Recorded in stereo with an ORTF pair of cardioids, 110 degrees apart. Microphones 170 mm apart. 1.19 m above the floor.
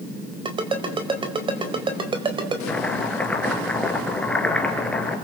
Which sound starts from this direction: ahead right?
A ringtone, at 0.5 s.